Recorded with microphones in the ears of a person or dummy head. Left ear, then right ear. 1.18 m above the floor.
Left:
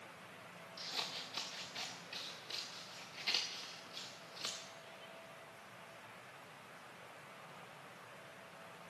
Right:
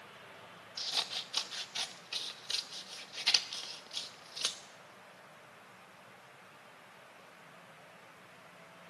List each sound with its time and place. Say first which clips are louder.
0.8 s scissors: right 7 dB; 35° right (ahead or behind), 0.7 m